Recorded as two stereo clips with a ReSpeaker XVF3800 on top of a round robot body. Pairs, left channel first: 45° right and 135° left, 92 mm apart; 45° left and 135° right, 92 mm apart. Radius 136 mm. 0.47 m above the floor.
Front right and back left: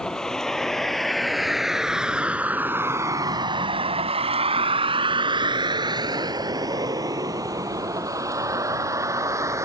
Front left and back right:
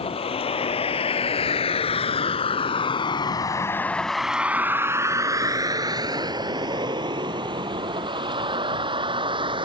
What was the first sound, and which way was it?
A vehicle, 40° left.